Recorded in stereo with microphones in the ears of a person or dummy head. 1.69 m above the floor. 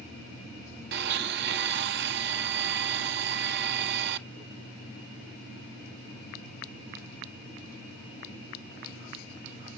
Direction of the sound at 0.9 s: 65° right (ahead or behind).